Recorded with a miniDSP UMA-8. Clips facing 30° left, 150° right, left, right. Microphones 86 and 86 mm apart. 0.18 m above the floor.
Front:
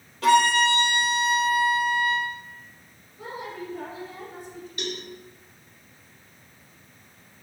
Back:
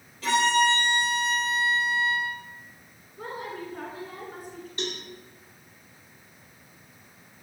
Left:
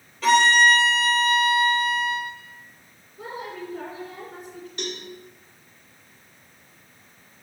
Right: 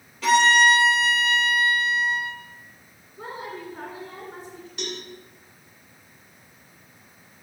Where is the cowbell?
175° right, 1.9 m.